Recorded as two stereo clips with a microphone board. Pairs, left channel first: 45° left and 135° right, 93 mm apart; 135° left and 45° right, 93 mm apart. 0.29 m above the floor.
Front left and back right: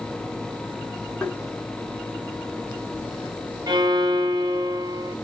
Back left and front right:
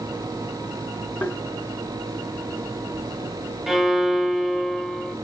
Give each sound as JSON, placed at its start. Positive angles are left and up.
{"t": 1.2, "sound": "tapping", "azimuth_deg": 110, "distance_m": 0.6}
{"t": 3.7, "sound": "a violin", "azimuth_deg": -130, "distance_m": 0.6}